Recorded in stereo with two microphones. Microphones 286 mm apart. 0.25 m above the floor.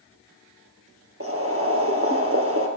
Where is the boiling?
50° right (ahead or behind), 3 m.